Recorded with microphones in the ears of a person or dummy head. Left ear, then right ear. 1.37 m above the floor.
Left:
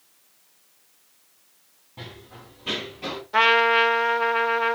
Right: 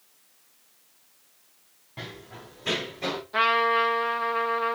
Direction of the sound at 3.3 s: 25° left (ahead or behind).